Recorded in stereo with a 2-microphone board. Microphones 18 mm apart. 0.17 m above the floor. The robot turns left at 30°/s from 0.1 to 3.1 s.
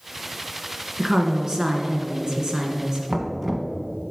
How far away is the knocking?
About 1.1 m.